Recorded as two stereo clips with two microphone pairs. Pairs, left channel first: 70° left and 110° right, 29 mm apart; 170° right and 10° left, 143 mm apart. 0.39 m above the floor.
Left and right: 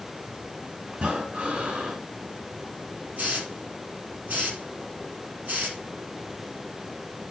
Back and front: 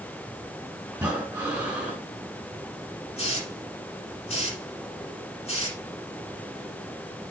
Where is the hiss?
125° right, 5 m.